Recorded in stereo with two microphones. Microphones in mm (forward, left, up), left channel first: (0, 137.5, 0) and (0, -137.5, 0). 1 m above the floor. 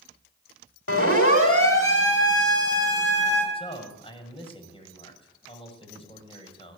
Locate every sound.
0.9 s a siren: 55° left (ahead or behind), 5 m
3.5 s a man speaking: 20° left (ahead or behind), 6 m